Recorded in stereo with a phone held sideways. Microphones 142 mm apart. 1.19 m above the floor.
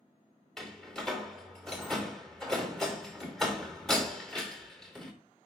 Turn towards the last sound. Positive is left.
turn(degrees=5)  # may be behind; listen again after turning